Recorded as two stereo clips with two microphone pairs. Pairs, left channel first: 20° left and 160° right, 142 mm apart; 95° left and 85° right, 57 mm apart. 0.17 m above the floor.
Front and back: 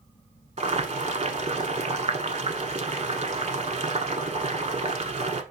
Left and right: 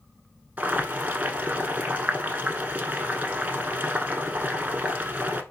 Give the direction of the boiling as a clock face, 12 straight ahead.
5 o'clock.